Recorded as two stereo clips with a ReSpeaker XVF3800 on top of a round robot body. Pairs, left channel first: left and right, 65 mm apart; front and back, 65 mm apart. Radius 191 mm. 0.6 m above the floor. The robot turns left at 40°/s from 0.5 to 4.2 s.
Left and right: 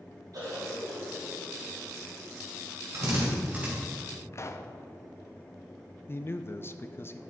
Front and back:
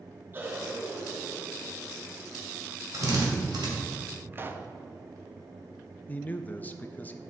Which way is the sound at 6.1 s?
55° left.